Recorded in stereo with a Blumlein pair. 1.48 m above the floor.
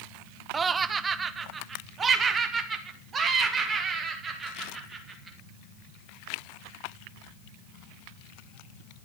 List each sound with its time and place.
0.5 s laughter: 15° right, 0.6 m; by 5.4 s 20° right, 3.5 m